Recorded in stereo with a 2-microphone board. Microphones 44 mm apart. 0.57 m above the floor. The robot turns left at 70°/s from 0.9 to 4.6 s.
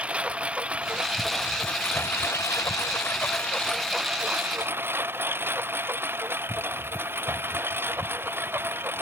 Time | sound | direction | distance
0.0 | a lawn mower | 155° right | ?